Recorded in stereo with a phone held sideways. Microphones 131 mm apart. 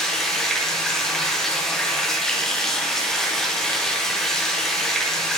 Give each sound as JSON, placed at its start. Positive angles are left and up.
{"t": 0.0, "sound": "running water", "side_deg": 5, "distance_m": 0.8}